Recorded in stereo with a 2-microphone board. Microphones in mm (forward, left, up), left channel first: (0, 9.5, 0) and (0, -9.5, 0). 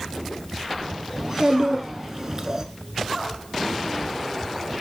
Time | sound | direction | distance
1.2 | a child speaking | 25° right (ahead or behind) | 1.3 m